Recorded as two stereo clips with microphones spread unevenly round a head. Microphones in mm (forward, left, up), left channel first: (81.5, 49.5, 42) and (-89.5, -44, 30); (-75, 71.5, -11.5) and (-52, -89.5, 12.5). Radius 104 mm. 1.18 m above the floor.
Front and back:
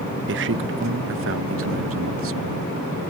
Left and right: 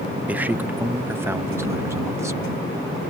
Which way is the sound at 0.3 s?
165° right.